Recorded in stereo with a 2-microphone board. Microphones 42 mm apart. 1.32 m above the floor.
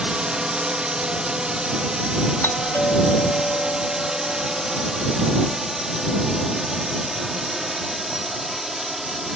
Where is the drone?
20° right (ahead or behind); by 9.4 s 5° right (ahead or behind).